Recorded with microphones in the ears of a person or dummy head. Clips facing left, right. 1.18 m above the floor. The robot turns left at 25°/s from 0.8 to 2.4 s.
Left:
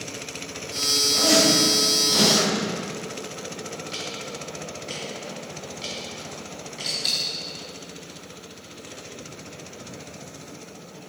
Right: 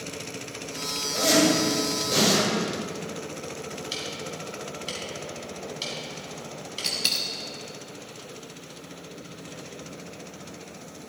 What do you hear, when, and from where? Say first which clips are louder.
1.1 s a zipper: even; 30° right (ahead or behind), 5.5 m; by 2.5 s 60° right (ahead or behind), 5.5 m
3.9 s ticking: even; 45° right (ahead or behind), 4 m
6.8 s a dropped coin: even; 40° right (ahead or behind), 0.8 m